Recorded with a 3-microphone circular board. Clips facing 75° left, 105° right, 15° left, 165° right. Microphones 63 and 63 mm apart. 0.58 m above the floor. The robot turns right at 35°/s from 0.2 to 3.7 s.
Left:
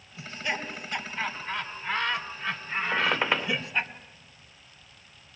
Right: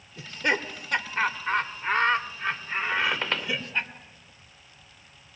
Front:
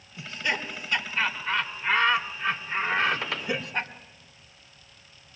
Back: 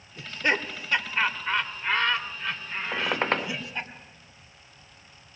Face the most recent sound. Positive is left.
turn(degrees=160)